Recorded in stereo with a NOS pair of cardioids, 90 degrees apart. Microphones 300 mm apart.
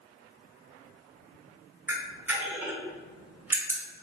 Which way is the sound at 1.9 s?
5° right.